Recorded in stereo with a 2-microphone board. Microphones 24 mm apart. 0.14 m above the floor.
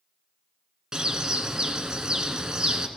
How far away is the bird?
About 1.0 m.